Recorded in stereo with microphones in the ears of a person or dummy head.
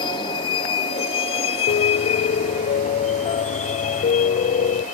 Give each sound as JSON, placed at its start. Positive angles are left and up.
{"t": 0.0, "sound": "a vehicle", "side_deg": 25}
{"t": 1.7, "sound": "a piano", "side_deg": 35}